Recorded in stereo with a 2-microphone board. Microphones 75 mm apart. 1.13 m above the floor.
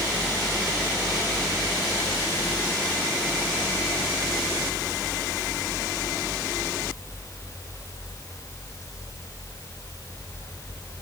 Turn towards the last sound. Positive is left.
No sound to turn to.